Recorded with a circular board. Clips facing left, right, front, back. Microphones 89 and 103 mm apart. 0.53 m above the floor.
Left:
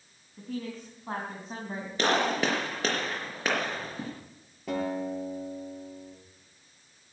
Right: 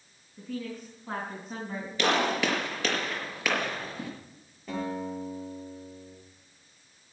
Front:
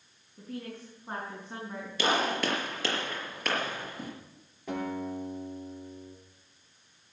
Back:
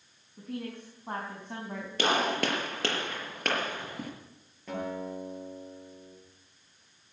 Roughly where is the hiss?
No hiss in this recording.